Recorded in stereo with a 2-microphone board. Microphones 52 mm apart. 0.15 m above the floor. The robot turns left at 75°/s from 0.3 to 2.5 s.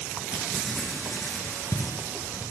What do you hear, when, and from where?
0.3 s writing: 20° right (ahead or behind), 0.8 m; by 2.5 s 35° left (ahead or behind), 0.8 m